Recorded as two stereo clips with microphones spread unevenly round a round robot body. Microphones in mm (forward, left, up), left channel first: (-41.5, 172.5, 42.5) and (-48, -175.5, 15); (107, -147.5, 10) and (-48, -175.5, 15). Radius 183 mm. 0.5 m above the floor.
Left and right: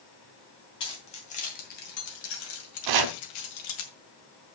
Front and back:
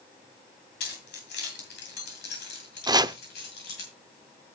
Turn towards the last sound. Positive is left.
turn(degrees=-100)